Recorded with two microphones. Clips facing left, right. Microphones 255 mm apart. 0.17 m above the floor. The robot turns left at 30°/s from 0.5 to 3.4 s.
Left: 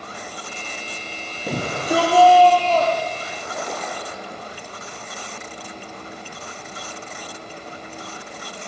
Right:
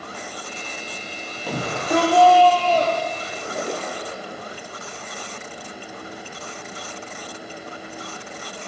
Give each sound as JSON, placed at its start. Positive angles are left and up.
{"t": 1.5, "sound": "a shout", "azimuth_deg": 25, "distance_m": 5.5}
{"t": 3.2, "sound": "a splash", "side_deg": -30, "distance_m": 3.5}